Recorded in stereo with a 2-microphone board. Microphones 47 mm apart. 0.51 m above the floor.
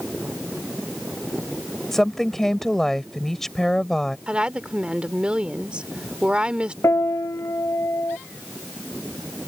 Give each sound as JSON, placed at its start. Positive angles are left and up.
{"t": 1.9, "sound": "a woman speaking", "side_deg": 10}
{"t": 4.3, "sound": "a woman speaking", "side_deg": -20}
{"t": 6.8, "sound": "a piano", "side_deg": 80}